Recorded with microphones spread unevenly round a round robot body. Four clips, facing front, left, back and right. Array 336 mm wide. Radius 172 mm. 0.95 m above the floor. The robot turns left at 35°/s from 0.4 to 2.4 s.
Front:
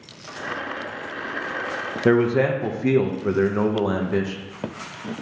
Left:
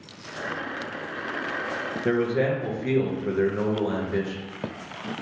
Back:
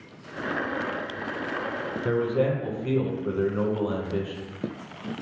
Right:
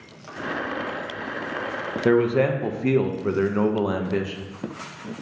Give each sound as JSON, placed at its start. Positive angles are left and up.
{"t": 2.0, "sound": "a man speaking", "azimuth_deg": -25, "distance_m": 0.5}